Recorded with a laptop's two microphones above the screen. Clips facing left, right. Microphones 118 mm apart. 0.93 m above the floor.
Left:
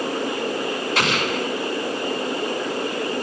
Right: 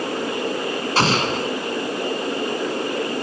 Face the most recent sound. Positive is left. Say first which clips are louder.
# right 4 dB
turn(degrees=-35)  # may be behind; listen again after turning